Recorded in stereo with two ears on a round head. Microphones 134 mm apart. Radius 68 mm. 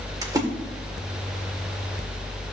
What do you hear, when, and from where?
0.2 s a splash: 25° right (ahead or behind), 1.6 m